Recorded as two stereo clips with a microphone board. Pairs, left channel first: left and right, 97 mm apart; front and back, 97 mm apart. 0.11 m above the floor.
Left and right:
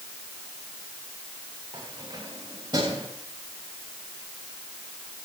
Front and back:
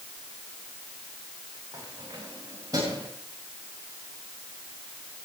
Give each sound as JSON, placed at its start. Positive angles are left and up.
{"t": 1.7, "sound": "keys jangling", "azimuth_deg": -125, "distance_m": 10.0}